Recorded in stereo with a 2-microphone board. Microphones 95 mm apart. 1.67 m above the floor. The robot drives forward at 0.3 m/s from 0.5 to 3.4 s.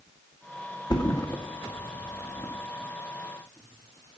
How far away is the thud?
About 1.4 m.